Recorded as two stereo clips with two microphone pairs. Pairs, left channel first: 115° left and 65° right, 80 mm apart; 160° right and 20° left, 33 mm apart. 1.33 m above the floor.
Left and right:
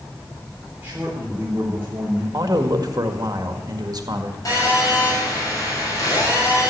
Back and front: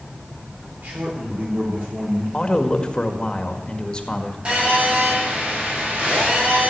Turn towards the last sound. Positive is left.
turn(degrees=70)